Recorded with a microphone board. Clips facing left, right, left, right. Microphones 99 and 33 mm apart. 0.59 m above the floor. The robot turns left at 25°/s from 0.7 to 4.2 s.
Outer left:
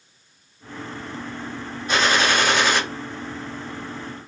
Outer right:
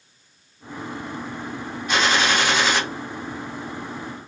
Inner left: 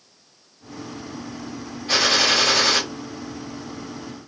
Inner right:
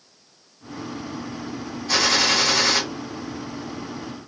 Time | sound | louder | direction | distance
1.9 | a gunshot | outer left 1 dB, inner left 1 dB | 40° left (ahead or behind) | 1.2 m